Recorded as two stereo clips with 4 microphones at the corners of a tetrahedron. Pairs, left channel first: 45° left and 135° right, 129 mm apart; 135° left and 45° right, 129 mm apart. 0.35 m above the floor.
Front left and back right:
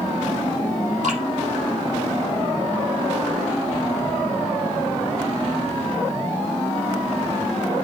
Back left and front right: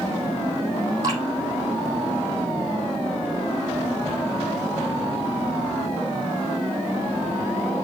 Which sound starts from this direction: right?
Dripping, at 1.0 s.